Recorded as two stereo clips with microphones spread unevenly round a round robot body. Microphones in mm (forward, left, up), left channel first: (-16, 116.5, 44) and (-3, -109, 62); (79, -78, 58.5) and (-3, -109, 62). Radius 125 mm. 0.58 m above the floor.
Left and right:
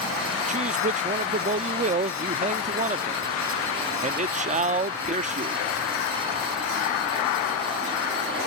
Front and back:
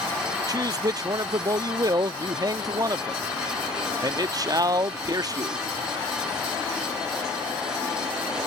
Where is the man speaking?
135° right.